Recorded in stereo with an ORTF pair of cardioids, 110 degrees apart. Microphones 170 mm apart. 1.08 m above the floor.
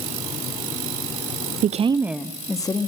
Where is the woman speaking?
55° right, 0.8 m; by 2.9 s 25° left, 1.8 m.